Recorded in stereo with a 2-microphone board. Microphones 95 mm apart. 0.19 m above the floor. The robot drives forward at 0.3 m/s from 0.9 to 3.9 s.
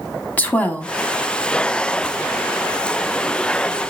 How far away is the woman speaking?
About 1.2 m.